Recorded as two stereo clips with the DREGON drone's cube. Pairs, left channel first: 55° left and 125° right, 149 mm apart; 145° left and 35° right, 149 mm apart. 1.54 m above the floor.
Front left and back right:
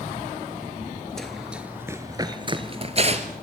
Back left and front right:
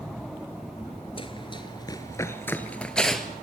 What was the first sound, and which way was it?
Running footsteps, 140° left.